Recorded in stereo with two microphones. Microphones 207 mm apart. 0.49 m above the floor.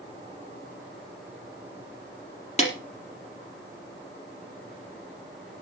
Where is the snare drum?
35° left (ahead or behind), 4 m.